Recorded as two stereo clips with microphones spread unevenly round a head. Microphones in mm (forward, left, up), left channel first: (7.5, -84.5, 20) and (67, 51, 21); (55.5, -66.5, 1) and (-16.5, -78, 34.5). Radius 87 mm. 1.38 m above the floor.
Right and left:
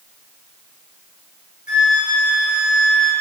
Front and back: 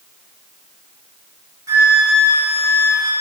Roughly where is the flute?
Behind.